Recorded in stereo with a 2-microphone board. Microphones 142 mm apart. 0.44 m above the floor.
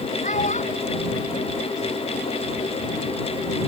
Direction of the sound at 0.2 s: 60° left (ahead or behind).